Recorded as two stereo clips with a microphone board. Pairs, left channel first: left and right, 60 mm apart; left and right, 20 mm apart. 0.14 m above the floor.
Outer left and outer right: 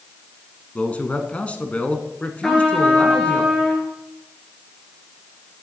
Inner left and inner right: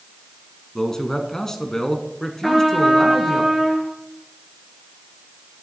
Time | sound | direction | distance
0.8 | a man speaking | 25° left (ahead or behind) | 1.1 m
2.4 | a trumpet | 5° left (ahead or behind) | 2.5 m